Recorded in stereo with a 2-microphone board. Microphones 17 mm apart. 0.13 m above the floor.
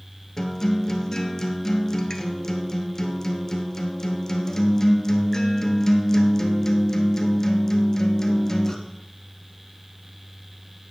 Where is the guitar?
30° left (ahead or behind), 1.2 m.